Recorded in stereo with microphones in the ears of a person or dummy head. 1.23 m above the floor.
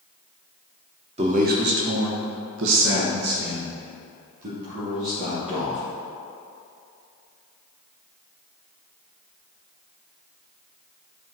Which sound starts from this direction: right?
A man speaking, at 1.2 s.